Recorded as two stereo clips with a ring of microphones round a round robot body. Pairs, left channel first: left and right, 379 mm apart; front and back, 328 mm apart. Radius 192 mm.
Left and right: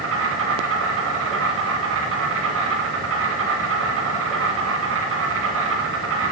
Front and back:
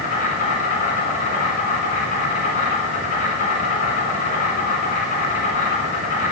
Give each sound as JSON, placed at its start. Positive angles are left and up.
{"t": 0.0, "sound": "an insect", "azimuth_deg": -55, "distance_m": 1.3}